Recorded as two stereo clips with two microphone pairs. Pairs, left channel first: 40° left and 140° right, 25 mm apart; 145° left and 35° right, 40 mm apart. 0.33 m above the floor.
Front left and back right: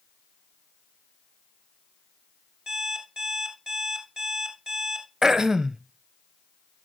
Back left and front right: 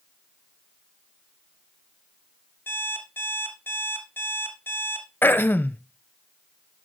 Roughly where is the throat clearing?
Behind left.